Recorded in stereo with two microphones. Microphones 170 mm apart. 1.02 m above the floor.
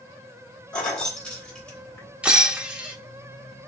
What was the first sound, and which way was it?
Keys jangling, 5° left (ahead or behind).